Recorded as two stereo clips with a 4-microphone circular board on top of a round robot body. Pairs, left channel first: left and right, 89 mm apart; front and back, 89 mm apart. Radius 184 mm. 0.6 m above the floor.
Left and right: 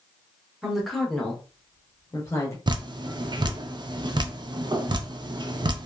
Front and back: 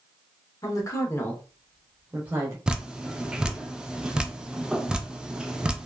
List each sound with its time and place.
0.6 s a woman speaking: 5° right, 1.3 m; by 2.6 s 130° left, 1.3 m
2.7 s dripping: 100° right, 0.6 m